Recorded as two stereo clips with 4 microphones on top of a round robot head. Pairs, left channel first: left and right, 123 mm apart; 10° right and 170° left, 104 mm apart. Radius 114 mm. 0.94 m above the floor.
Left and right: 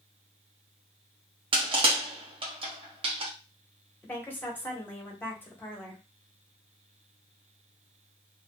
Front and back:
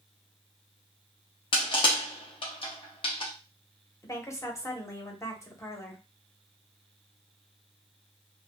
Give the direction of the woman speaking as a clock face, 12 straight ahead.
11 o'clock.